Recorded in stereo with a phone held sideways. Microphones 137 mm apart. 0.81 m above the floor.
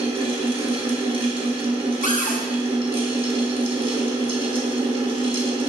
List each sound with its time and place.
0.0 s a fan: 40° right (ahead or behind), 0.9 m
2.0 s a cupboard door: 70° left (ahead or behind), 0.6 m